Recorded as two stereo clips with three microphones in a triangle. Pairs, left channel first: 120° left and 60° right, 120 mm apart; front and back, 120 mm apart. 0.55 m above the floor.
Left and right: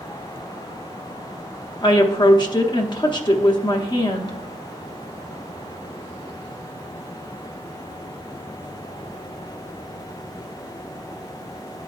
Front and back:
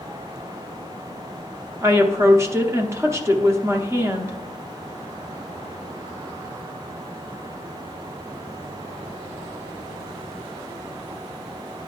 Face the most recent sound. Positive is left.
turn(degrees=130)